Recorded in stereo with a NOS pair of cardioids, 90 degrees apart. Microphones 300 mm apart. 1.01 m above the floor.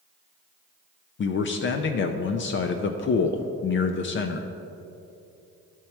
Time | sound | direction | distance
1.2 | a man speaking | 40° left | 0.5 m